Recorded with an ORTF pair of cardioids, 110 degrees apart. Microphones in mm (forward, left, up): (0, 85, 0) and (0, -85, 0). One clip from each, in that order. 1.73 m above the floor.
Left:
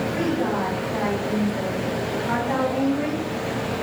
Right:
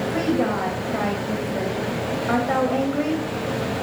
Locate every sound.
0.1 s a woman speaking: 40° right, 0.9 m